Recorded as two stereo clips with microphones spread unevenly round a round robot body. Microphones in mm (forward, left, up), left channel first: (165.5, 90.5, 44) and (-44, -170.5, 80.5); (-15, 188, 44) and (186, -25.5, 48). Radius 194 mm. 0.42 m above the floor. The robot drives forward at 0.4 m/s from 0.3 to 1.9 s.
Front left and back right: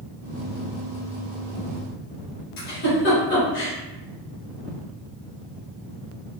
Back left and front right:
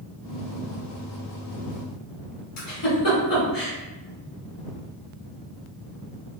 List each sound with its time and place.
2.6 s a giggle: 100° left, 1.6 m